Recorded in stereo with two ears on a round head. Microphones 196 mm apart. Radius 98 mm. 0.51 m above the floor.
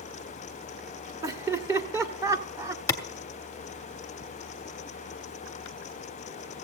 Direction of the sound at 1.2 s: 15° right (ahead or behind).